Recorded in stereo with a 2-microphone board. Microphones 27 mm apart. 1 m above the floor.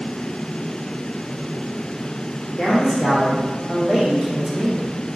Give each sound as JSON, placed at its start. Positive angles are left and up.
{"t": 2.6, "sound": "a man speaking", "side_deg": 25, "distance_m": 1.4}